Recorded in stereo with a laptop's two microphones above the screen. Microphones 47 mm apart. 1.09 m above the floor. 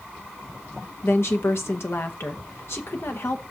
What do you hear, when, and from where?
1.0 s a woman speaking: 60° left (ahead or behind), 1.1 m